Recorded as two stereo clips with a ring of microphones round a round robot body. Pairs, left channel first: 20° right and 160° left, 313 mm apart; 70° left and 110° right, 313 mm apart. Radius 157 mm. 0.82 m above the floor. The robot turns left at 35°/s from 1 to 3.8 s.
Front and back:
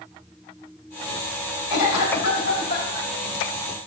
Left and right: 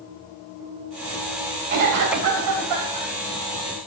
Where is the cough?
45° right, 3.5 m; by 3.1 s 95° right, 3.5 m.